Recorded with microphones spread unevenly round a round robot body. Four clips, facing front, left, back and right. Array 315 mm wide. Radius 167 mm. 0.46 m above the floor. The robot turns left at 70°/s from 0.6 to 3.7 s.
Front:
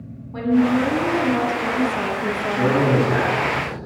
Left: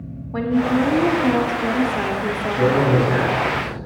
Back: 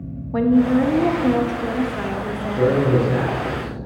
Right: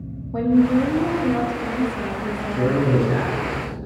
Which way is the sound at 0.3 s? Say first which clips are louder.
Right 2 dB, back 2 dB; 175° right.